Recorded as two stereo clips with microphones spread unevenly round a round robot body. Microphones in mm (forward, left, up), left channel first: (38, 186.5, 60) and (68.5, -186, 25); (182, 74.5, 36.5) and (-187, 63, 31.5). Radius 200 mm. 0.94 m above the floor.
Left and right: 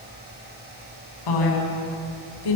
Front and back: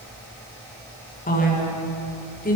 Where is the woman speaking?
70° left, 8 m.